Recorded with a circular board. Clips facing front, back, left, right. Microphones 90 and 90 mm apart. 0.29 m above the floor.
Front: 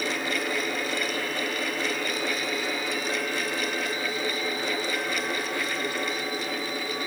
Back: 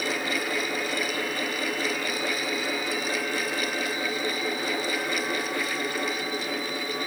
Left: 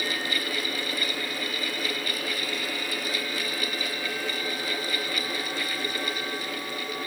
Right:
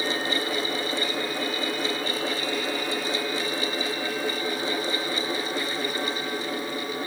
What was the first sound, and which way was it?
Only background noise.